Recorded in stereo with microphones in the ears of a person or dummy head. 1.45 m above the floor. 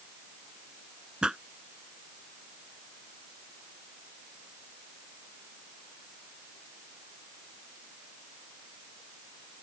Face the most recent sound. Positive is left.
turn(degrees=-5)  # may be behind; listen again after turning